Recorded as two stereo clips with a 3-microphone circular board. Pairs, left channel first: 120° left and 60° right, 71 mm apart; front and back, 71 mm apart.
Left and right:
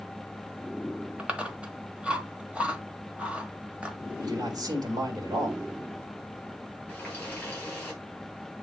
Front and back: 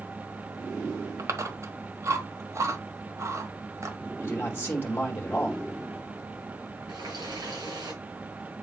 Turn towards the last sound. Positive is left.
turn(degrees=-170)